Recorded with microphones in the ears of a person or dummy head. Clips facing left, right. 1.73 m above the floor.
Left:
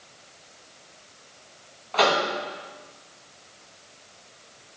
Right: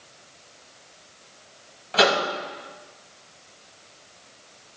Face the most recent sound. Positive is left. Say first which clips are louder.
# right 1 dB
turn(degrees=-35)  # may be behind; listen again after turning